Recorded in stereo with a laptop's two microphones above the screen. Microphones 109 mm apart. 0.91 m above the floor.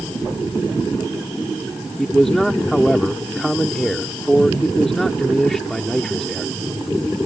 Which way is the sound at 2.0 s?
5° left (ahead or behind).